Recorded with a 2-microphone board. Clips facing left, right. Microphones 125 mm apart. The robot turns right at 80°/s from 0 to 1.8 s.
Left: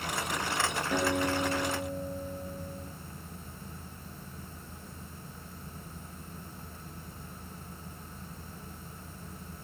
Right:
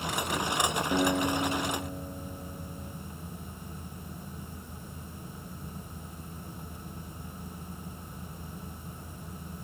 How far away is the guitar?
About 3.5 m.